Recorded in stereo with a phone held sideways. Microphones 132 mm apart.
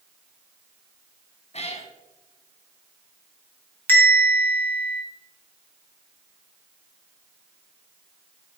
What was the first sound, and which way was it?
A cat meowing, 55° left (ahead or behind).